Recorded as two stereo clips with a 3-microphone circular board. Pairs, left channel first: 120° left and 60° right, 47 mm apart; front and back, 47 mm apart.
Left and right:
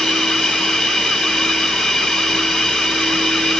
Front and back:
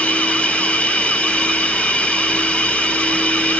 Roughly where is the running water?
Ahead left.